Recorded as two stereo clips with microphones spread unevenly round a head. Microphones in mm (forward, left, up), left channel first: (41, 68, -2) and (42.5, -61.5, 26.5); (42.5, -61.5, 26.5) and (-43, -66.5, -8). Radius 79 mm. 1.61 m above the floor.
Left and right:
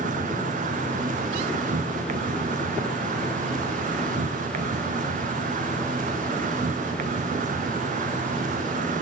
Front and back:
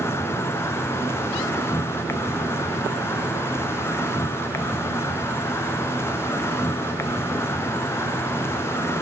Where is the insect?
70° right, 0.7 m.